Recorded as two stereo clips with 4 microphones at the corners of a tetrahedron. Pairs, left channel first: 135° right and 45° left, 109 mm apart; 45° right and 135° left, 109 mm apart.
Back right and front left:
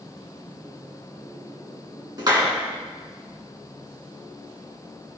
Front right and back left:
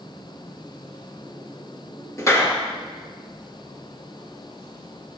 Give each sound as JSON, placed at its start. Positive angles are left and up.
{"t": 2.2, "sound": "a clap", "azimuth_deg": 5, "distance_m": 2.0}